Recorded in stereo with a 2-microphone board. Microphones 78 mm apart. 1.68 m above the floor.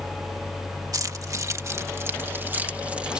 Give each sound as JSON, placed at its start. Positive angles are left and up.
{"t": 0.9, "sound": "keys jangling", "side_deg": -50}